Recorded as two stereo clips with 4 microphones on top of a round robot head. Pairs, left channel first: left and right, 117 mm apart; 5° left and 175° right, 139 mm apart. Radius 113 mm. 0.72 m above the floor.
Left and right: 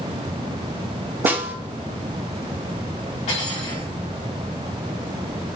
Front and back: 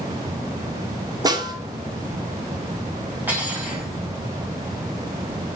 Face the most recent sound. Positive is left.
turn(degrees=110)